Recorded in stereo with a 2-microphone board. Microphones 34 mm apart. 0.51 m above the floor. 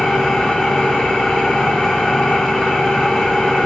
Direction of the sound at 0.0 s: 25° left (ahead or behind).